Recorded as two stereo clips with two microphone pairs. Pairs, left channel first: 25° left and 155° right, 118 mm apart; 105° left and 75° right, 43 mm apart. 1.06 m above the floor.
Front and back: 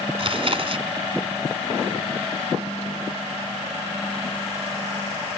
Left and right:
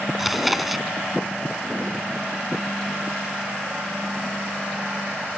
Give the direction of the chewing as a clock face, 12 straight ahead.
5 o'clock.